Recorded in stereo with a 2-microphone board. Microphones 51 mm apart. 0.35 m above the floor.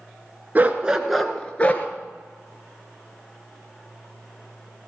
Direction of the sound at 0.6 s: 30° right (ahead or behind).